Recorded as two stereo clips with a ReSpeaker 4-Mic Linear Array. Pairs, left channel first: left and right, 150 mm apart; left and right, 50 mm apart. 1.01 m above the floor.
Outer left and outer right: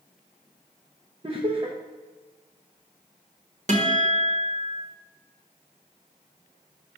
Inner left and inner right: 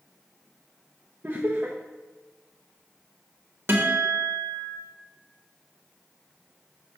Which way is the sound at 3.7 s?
50° right (ahead or behind).